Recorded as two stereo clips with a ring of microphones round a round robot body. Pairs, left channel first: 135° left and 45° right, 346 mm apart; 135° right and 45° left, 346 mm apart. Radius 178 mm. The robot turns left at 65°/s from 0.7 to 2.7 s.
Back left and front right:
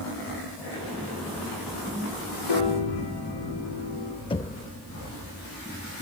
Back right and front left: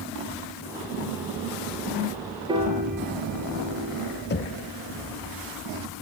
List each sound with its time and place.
2.5 s a piano: 125° left, 5.5 m; by 4.2 s 110° left, 5.5 m
4.3 s knocking: 160° right, 0.7 m